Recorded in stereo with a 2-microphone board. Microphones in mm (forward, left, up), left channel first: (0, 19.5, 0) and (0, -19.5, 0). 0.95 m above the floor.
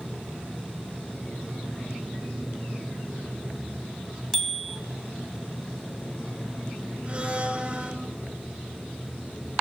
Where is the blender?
25° right (ahead or behind), 9.5 m.